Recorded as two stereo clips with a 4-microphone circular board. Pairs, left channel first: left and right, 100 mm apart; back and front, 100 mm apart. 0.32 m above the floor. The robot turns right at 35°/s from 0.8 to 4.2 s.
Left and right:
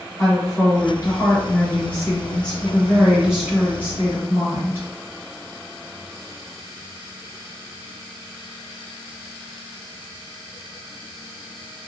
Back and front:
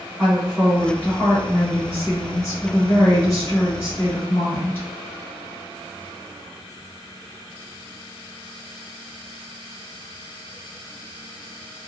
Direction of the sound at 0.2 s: 105° left.